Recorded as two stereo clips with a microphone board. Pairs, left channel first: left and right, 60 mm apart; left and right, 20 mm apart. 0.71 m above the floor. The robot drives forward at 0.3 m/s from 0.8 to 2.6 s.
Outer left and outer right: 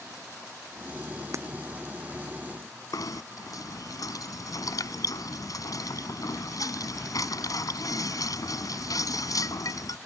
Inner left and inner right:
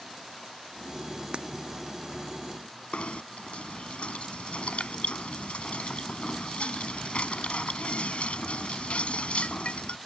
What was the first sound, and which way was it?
Breaking glass, 50° right (ahead or behind).